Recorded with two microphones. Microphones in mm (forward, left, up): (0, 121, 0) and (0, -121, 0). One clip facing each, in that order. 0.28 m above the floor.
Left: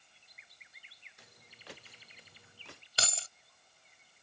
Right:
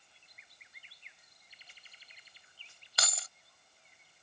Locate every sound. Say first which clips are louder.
1.2 s footsteps: left 10 dB; 75° left (ahead or behind); by 2.8 s 70° left (ahead or behind)
3.0 s keys jangling: left 1 dB; 30° left (ahead or behind)